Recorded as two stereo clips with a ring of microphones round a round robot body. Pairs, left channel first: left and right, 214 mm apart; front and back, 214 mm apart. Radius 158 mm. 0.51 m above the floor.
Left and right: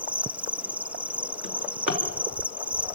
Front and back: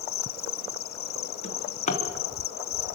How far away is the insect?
About 0.8 m.